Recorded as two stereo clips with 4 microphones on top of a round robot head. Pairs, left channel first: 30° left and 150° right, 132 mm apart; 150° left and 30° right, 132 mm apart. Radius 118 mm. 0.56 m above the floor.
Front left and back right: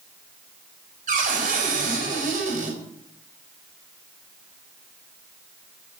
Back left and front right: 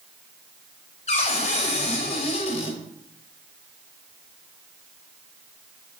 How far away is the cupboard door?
About 3 m.